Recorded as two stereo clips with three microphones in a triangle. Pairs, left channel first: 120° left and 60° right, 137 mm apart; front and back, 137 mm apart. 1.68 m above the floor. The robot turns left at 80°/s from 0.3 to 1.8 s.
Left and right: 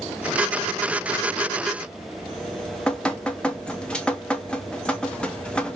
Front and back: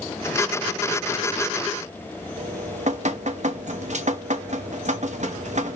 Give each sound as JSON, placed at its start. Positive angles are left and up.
{"t": 2.4, "sound": "dripping", "azimuth_deg": -160, "distance_m": 0.9}